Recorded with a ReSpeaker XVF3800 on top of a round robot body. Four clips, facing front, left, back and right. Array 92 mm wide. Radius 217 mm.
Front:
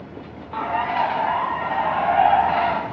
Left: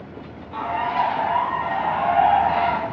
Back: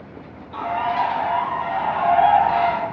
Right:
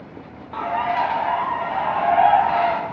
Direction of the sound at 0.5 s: 25° right.